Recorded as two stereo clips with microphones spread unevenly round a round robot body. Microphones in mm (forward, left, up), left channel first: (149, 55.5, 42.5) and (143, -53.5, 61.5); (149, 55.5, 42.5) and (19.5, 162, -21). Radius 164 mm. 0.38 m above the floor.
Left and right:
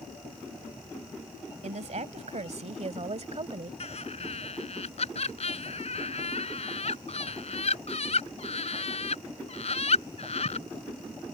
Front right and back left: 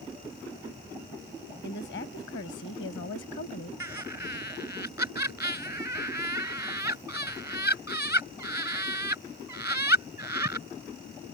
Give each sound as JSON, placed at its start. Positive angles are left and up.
{"t": 1.6, "sound": "a woman speaking", "azimuth_deg": -95}
{"t": 3.8, "sound": "laughter", "azimuth_deg": 70}